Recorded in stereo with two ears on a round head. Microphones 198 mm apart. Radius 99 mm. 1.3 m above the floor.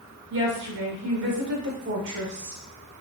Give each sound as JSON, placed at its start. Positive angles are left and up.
{"t": 0.3, "sound": "a woman speaking", "side_deg": -55, "distance_m": 1.4}